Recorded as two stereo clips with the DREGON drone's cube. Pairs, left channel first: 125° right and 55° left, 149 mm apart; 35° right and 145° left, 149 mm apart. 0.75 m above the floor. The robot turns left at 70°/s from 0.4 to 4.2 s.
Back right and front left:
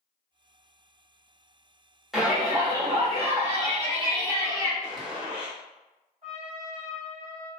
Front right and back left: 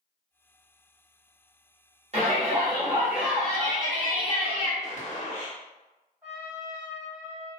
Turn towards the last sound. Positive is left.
turn(degrees=75)